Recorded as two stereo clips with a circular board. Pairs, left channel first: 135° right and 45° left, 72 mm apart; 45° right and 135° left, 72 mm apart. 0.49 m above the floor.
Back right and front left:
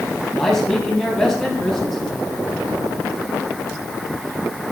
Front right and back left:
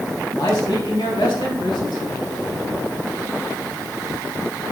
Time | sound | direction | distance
0.4 | a man speaking | 50° right | 3.5 m